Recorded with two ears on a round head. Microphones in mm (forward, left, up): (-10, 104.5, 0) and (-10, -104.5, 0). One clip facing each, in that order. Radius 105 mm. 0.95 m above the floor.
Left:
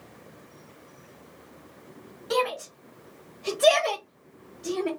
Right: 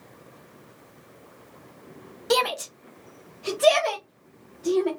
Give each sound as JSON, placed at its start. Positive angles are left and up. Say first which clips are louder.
{"t": 2.3, "sound": "a shout", "louder": "right 2 dB", "side_deg": -55, "distance_m": 0.7}